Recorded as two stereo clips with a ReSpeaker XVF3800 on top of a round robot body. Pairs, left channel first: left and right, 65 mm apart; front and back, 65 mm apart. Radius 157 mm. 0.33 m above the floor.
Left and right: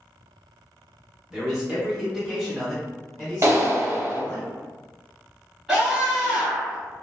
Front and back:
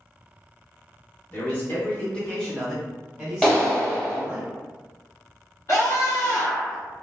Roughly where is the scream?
Ahead.